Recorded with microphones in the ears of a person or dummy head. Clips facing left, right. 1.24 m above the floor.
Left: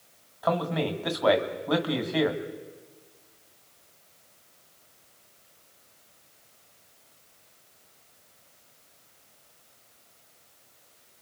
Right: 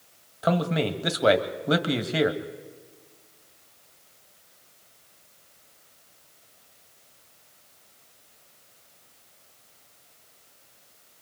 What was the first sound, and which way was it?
A man speaking, 30° right (ahead or behind).